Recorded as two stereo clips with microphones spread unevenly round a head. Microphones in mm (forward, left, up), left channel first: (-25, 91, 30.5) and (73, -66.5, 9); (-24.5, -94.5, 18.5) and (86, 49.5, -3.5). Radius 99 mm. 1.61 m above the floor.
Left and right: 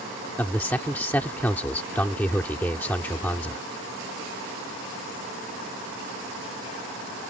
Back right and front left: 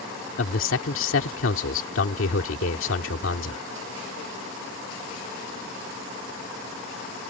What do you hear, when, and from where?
0.4 s a man speaking: 155° right